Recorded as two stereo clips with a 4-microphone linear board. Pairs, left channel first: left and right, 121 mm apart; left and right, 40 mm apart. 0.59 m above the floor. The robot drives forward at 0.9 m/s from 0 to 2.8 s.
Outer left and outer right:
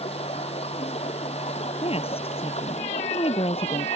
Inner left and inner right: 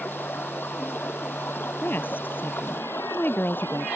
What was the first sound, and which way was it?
Running water, 55° left (ahead or behind).